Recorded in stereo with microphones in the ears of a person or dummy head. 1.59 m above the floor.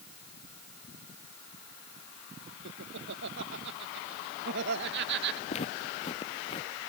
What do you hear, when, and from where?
2.6 s laughter: 65° right (ahead or behind); by 5.4 s 55° right (ahead or behind)
5.5 s footsteps: 40° left (ahead or behind); by 6.7 s 35° left (ahead or behind)